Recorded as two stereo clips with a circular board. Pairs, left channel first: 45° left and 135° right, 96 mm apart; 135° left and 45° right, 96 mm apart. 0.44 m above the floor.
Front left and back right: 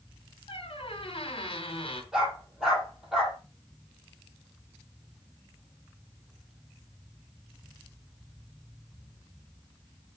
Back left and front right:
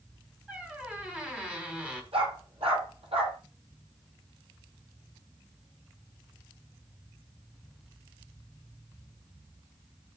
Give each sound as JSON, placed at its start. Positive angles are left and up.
{"t": 0.5, "sound": "a squeak", "azimuth_deg": 30, "distance_m": 3.0}
{"t": 2.1, "sound": "a dog barking", "azimuth_deg": -45, "distance_m": 6.5}